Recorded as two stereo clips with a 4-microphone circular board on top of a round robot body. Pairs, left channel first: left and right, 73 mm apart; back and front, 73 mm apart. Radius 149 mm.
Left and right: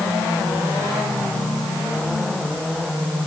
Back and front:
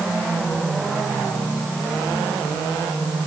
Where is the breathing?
No breathing in this recording.